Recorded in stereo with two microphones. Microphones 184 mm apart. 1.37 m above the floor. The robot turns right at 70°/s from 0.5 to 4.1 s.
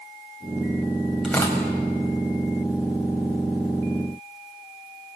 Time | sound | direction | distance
1.2 | tearing paper | centre (ahead or behind) | 5.5 m